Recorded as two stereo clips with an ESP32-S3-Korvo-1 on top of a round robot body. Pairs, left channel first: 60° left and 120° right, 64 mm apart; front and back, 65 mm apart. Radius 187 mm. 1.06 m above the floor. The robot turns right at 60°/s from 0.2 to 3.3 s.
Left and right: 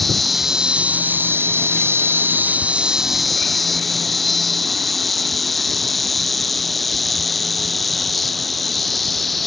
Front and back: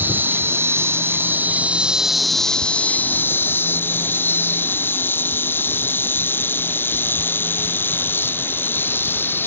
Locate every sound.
0.0 s an insect: 145° left; by 9.5 s 30° right